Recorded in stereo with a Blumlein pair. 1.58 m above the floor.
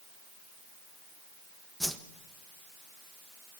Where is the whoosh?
Straight ahead, 1.5 m.